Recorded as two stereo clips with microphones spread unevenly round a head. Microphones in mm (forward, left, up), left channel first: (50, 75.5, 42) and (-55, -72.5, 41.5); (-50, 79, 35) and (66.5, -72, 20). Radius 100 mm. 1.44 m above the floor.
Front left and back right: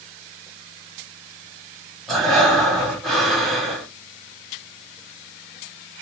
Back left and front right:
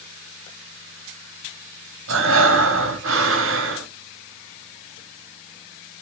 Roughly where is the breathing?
Ahead right.